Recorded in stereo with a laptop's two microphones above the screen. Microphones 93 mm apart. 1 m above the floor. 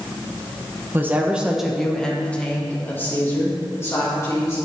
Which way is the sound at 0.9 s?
20° right (ahead or behind).